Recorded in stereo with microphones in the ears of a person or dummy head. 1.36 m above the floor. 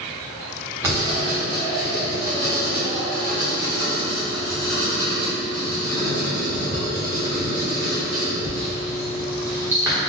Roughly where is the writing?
Centre.